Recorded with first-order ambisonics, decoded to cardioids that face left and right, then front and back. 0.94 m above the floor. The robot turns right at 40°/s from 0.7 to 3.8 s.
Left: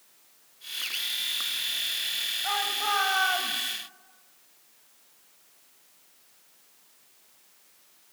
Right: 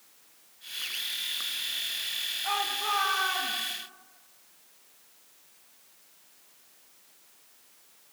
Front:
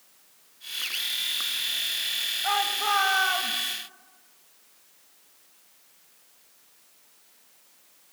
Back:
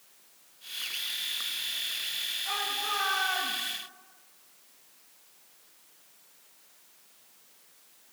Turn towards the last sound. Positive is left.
turn(degrees=75)